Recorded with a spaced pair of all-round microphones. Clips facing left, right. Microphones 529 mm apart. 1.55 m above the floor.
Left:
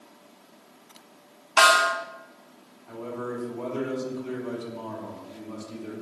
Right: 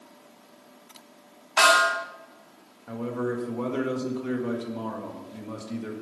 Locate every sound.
1.6 s a snare drum: 70° left (ahead or behind), 2.5 m
2.9 s a man speaking: 75° right (ahead or behind), 2 m